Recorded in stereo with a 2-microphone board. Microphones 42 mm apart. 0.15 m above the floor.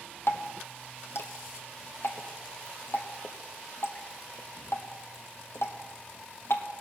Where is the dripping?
75° left (ahead or behind), 1.5 m.